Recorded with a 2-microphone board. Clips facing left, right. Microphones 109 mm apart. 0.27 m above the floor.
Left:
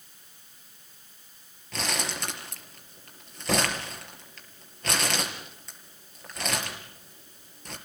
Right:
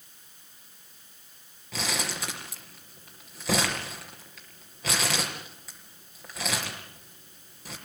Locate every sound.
1.7 s crumpling: 5° right (ahead or behind), 6 m